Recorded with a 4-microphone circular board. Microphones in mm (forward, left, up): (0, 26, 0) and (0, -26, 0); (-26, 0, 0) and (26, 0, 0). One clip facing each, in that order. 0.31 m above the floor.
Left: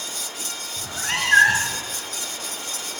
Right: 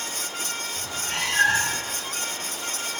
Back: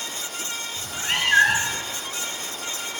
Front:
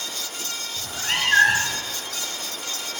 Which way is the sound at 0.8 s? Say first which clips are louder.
Left 6 dB, even; 90° left.